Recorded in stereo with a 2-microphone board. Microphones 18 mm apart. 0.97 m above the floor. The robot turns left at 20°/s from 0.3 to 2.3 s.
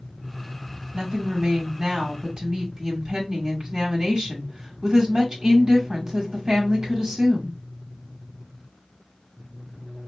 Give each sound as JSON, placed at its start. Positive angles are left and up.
{"t": 0.9, "sound": "a woman speaking", "side_deg": -50, "distance_m": 1.6}